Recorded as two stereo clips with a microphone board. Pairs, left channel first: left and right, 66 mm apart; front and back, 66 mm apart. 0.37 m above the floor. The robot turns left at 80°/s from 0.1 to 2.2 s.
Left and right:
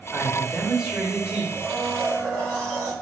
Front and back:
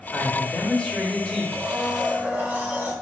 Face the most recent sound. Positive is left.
turn(degrees=130)